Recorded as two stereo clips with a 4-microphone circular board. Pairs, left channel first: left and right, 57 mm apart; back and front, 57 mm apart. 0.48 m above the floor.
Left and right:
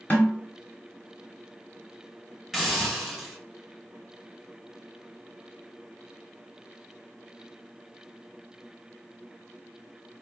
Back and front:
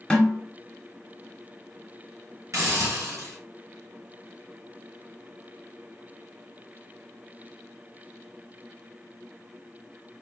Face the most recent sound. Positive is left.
turn(degrees=-5)